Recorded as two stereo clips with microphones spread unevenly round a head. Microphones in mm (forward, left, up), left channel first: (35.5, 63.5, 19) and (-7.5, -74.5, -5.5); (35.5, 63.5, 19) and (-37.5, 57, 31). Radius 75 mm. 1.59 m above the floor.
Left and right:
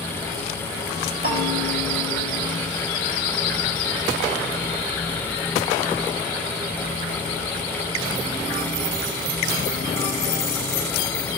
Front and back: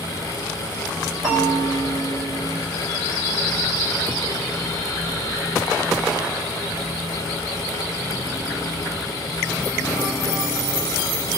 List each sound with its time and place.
1.2 s a bell: 85° right, 3.5 m